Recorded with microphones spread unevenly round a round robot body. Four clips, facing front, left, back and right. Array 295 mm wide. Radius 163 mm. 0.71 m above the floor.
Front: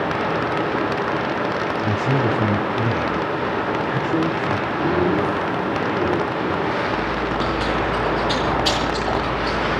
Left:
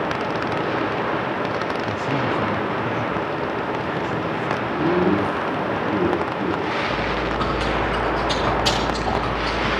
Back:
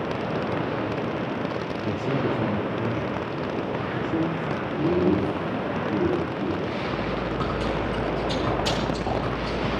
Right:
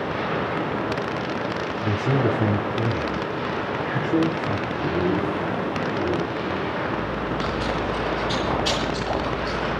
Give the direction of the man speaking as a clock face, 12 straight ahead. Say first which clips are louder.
Right 1 dB, front 4 dB; 2 o'clock.